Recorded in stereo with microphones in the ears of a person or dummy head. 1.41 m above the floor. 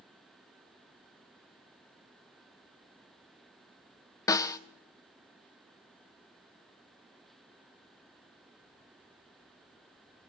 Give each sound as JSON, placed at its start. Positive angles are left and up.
{"t": 4.3, "sound": "a snare drum", "side_deg": 15, "distance_m": 1.1}